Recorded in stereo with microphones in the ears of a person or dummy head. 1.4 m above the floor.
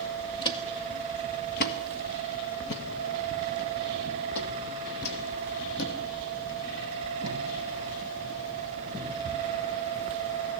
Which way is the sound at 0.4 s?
25° left (ahead or behind).